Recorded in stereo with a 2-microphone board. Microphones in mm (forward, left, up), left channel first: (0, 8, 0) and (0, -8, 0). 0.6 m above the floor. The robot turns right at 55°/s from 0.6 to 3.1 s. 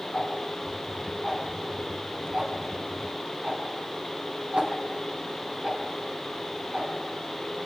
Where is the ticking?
60° left (ahead or behind), 5 m; by 7.7 s 75° right (ahead or behind), 5 m.